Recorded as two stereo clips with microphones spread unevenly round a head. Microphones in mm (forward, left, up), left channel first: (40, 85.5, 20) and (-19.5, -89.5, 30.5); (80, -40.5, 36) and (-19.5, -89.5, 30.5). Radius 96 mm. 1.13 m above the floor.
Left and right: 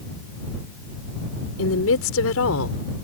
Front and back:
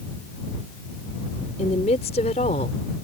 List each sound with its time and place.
1.6 s a woman speaking: 75° left